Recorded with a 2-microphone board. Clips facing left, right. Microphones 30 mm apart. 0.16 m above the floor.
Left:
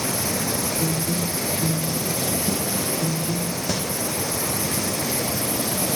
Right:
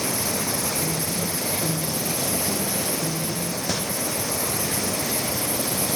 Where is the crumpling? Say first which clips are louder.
Left 1 dB; 5° right (ahead or behind), 1.9 m.